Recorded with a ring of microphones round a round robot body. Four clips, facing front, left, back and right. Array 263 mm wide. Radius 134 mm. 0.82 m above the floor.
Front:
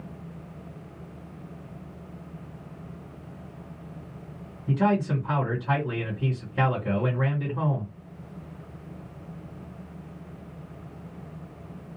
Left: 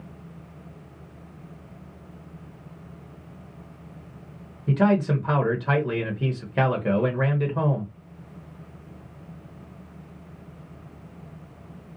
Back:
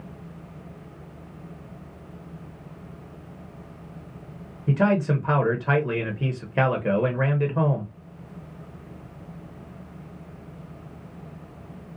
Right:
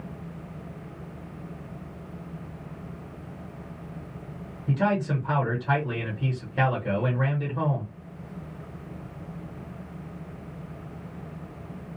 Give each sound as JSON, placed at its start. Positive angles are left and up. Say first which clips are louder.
{"t": 4.7, "sound": "a man speaking", "louder": "left 4 dB, back 2 dB", "azimuth_deg": 145, "distance_m": 0.9}